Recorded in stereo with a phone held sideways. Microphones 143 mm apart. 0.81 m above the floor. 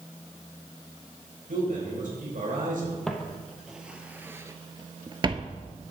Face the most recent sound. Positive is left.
turn(degrees=-35)  # may be behind; listen again after turning